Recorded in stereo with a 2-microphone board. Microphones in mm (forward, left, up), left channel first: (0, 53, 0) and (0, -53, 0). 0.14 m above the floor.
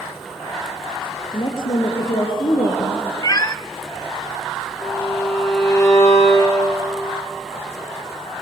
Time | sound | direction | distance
1.3 | a woman speaking | 50° left (ahead or behind) | 3.5 m
3.2 | a cat meowing | 35° left (ahead or behind) | 0.5 m
4.8 | a violin | 30° left (ahead or behind) | 8 m